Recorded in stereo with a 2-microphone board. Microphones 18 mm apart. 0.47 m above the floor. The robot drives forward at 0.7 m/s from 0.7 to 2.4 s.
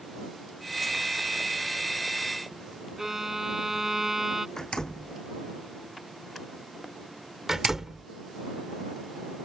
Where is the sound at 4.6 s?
35° left (ahead or behind).